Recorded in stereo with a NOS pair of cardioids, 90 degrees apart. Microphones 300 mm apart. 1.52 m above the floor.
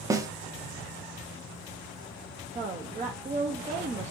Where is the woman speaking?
25° right, 0.6 m.